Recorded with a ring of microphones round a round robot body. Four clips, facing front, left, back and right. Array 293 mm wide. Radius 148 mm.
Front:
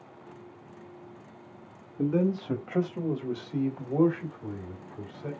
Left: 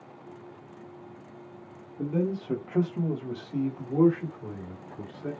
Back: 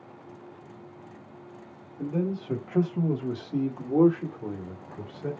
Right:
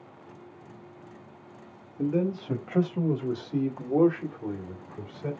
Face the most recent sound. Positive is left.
turn(degrees=-155)